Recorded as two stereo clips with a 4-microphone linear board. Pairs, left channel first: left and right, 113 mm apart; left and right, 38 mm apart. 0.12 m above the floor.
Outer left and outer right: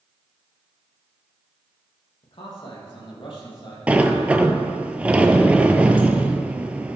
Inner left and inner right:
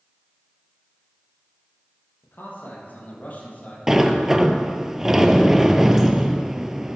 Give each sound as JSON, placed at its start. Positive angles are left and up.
{"t": 2.2, "sound": "a man speaking", "side_deg": 60, "distance_m": 4.0}
{"t": 3.9, "sound": "a sliding door", "side_deg": -15, "distance_m": 0.8}